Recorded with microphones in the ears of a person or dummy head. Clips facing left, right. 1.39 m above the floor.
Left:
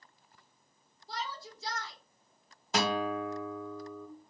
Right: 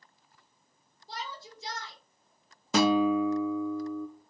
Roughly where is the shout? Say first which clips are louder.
Left 1 dB; right.